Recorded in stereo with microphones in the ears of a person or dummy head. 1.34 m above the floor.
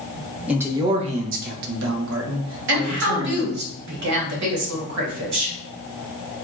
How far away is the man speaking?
About 0.7 m.